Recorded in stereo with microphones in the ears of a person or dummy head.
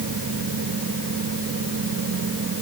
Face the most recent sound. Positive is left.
No sound to turn to.